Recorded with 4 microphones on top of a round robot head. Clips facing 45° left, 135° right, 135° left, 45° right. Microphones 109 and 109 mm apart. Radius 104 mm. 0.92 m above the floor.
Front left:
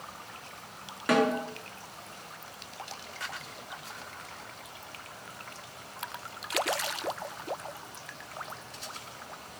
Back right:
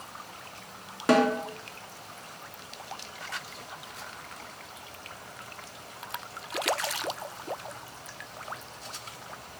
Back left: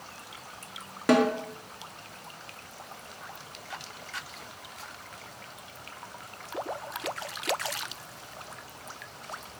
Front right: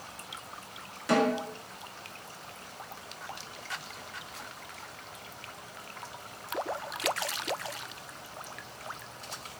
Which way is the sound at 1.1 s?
165° left.